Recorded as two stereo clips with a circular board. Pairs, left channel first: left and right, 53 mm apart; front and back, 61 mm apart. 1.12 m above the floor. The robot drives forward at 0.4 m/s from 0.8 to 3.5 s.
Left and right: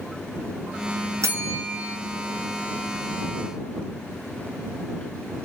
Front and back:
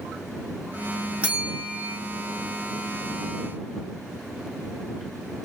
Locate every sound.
1.2 s a bell: 115° right, 0.9 m; by 2.0 s 130° right, 1.1 m